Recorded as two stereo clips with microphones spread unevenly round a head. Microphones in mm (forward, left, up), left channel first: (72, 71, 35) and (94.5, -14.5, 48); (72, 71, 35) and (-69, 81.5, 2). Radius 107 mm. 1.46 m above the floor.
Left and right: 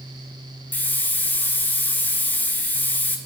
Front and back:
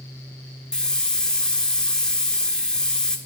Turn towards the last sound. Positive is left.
turn(degrees=45)